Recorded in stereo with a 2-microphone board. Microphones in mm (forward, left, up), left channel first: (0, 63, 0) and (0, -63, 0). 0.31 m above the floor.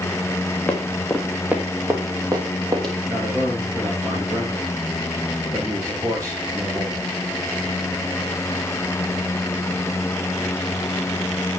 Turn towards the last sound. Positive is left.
turn(degrees=-25)  # may be behind; listen again after turning